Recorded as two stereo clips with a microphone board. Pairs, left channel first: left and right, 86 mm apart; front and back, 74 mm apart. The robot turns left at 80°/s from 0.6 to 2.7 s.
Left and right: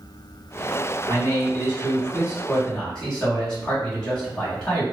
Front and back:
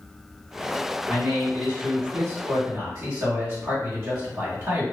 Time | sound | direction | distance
1.1 | a man speaking | 70° right | 1.6 m